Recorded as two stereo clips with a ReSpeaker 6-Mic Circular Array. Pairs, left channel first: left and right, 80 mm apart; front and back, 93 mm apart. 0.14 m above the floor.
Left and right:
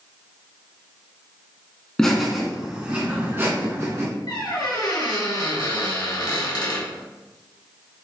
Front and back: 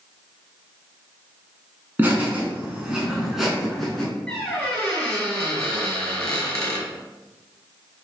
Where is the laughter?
160° left, 1.1 m; by 4.1 s 85° right, 1.3 m.